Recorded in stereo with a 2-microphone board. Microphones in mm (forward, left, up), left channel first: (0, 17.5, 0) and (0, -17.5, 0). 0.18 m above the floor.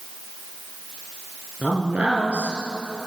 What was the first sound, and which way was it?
A man speaking, 45° right (ahead or behind).